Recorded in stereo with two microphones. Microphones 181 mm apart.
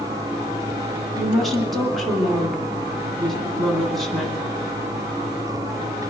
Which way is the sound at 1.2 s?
Centre (ahead or behind).